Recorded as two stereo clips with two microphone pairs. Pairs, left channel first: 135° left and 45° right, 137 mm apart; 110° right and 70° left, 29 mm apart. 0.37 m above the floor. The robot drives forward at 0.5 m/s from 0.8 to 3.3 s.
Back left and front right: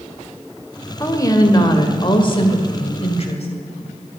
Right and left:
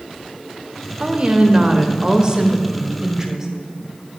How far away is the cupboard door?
I don't hear a cupboard door.